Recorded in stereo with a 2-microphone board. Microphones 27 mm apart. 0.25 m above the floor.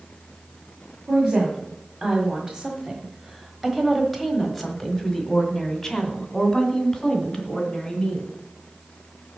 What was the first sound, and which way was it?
A woman speaking, 30° right (ahead or behind).